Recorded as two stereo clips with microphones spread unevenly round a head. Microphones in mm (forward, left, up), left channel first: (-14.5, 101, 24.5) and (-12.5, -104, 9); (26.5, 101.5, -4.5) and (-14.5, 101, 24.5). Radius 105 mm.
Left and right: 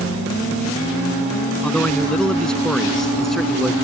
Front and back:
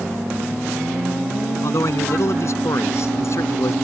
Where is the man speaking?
5° left; by 3.7 s straight ahead.